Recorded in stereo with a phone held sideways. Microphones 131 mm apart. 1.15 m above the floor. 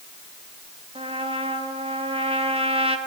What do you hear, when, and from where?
0.9 s a trumpet: 50° right (ahead or behind), 1.5 m